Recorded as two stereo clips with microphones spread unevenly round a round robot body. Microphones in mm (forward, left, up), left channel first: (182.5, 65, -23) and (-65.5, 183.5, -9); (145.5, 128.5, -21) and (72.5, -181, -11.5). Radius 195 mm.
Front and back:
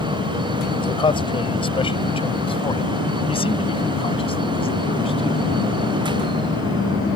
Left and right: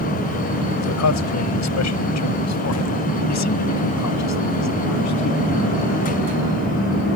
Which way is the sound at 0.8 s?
45° left.